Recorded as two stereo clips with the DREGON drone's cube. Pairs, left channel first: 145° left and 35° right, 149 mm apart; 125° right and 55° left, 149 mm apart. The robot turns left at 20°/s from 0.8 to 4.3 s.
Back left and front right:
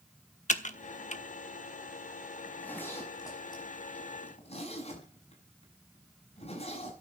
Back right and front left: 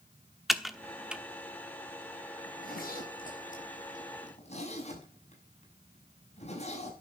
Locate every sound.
0.5 s typing on a keyboard: 145° left, 1.1 m; by 1.2 s 135° left, 1.1 m
2.5 s a zipper: 130° right, 6 m; by 7.0 s 165° right, 6 m